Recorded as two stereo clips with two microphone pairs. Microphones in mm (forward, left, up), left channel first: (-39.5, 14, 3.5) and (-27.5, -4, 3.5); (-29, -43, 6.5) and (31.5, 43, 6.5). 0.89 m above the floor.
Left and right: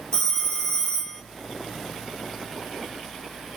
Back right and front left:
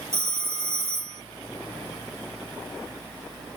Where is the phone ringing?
65° left, 1.1 m.